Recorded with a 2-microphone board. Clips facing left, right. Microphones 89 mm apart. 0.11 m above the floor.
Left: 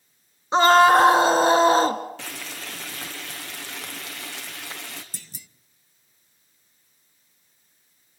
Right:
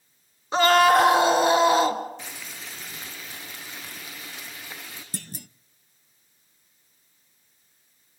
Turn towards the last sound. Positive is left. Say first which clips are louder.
# right 9 dB
turn(degrees=-55)  # may be behind; listen again after turning